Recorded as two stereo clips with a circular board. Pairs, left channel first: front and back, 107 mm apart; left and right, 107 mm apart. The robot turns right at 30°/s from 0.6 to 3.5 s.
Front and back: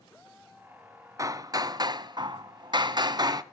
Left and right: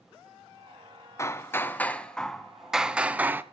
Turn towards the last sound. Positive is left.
turn(degrees=-150)